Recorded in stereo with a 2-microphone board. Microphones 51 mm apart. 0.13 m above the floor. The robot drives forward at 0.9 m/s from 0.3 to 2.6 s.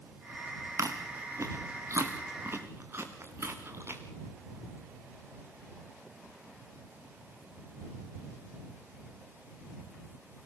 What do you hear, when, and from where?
0.8 s chewing: 80° right, 3 m; by 4.0 s 55° right (ahead or behind), 3.5 m